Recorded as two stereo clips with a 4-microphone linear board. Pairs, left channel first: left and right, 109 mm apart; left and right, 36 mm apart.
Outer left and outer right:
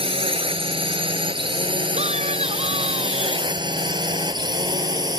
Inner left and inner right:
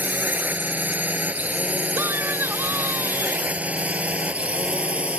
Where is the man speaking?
70° right (ahead or behind).